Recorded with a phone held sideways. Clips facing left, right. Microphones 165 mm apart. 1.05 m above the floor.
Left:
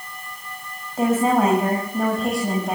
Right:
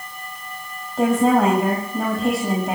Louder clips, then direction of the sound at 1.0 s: Right 2 dB; 5° left (ahead or behind).